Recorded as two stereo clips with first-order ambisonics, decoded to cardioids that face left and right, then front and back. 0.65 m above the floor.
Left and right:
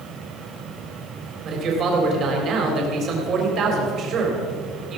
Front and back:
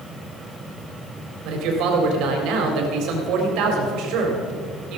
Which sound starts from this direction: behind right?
A man speaking, at 1.4 s.